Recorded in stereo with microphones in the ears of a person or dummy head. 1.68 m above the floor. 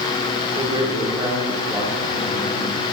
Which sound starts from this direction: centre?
A man speaking, at 0.6 s.